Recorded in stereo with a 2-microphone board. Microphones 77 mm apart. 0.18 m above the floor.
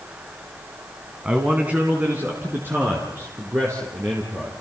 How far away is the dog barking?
I don't hear a dog barking.